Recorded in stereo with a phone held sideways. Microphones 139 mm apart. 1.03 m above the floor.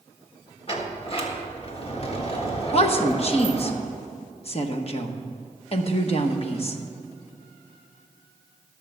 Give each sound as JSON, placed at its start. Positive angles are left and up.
{"t": 0.7, "sound": "a sliding door", "side_deg": 45, "distance_m": 1.5}
{"t": 2.7, "sound": "a woman speaking", "side_deg": 45, "distance_m": 1.1}